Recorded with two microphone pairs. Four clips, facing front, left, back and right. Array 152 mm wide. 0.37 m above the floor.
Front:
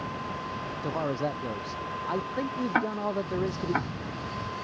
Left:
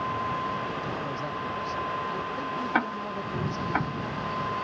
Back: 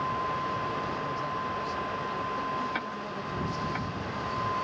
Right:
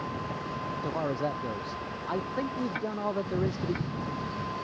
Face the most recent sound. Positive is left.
turn(degrees=50)